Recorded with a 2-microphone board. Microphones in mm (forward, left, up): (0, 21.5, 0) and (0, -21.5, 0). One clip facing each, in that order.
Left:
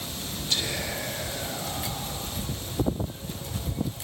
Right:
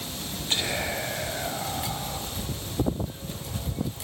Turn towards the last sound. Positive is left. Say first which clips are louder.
# right 2 dB
turn(degrees=-35)  # may be behind; listen again after turning